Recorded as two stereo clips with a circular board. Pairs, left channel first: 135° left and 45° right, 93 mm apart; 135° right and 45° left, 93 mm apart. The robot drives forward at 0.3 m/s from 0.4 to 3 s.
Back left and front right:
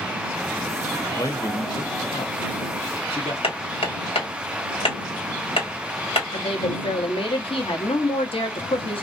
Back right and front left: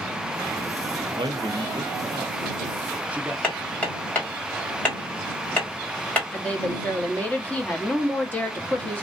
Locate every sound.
1.1 s a man speaking: 75° left, 0.7 m; by 3.3 s 120° left, 0.7 m
3.4 s hammering: 150° left, 1.7 m
6.3 s a woman speaking: 150° left, 0.9 m